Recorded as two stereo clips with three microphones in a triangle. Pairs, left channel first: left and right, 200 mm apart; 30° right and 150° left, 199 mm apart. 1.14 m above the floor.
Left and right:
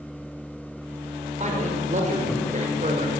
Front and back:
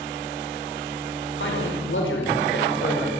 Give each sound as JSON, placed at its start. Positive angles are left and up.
{"t": 1.4, "sound": "a man speaking", "azimuth_deg": -40, "distance_m": 5.5}